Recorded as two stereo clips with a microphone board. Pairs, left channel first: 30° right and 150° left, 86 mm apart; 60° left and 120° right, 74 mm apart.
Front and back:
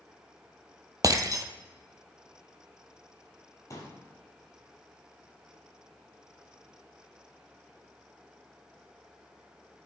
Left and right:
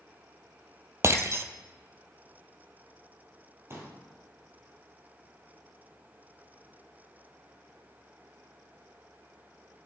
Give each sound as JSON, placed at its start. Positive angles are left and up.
{"t": 1.0, "sound": "breaking glass", "azimuth_deg": -165, "distance_m": 0.7}
{"t": 3.7, "sound": "a pop", "azimuth_deg": -75, "distance_m": 2.5}